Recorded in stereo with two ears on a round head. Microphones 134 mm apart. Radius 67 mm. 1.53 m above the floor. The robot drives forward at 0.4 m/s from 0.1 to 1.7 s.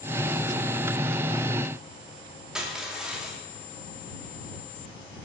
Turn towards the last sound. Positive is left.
turn(degrees=-5)  # may be behind; listen again after turning